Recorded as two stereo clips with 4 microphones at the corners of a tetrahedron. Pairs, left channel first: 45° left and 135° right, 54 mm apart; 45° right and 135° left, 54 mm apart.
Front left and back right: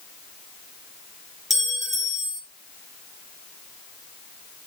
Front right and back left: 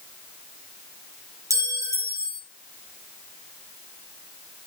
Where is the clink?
140° left, 2.5 m.